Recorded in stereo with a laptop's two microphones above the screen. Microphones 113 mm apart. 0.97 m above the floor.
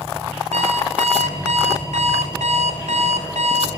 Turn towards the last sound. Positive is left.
turn(degrees=-75)  # may be behind; listen again after turning